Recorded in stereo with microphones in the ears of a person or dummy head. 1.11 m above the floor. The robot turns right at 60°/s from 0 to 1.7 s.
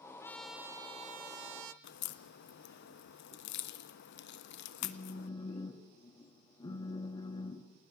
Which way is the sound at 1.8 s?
50° left (ahead or behind).